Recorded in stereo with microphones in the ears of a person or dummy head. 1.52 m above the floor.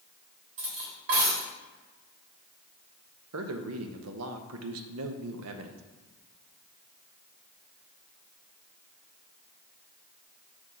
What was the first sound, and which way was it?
Cutlery clinking, 60° right (ahead or behind).